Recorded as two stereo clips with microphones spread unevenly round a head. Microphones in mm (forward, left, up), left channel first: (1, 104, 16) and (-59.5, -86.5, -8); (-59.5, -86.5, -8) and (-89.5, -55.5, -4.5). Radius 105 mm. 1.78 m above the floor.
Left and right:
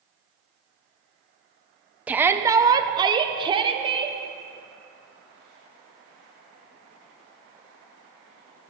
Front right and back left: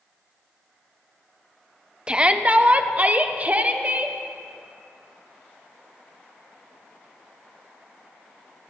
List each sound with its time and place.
2.1 s a shout: 165° left, 0.7 m; by 4.2 s 175° right, 1.7 m